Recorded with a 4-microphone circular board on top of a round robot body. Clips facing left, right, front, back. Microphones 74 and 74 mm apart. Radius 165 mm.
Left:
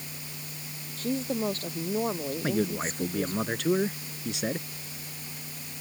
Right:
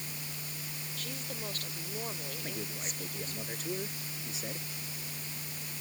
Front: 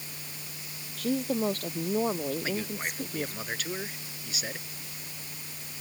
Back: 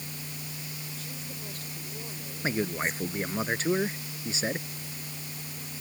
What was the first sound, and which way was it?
A woman speaking, 35° left.